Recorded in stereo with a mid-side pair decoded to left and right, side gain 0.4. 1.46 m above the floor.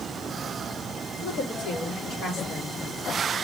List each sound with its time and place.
1.2 s a woman speaking: 70° left, 4 m